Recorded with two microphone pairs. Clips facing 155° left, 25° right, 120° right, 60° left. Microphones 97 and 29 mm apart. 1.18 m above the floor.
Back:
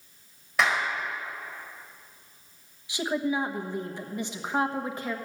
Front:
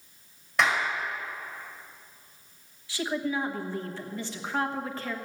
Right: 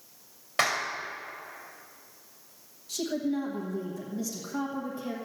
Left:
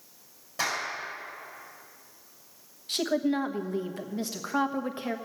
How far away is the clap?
About 4.5 m.